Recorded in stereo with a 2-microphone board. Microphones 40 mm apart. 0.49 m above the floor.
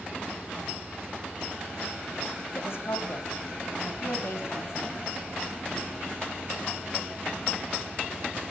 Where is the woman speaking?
70° left (ahead or behind), 3 m; by 5.1 s 75° left (ahead or behind), 4.5 m.